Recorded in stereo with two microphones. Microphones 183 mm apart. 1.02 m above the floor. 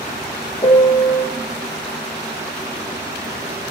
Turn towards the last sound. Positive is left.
turn(degrees=30)  # may be behind; listen again after turning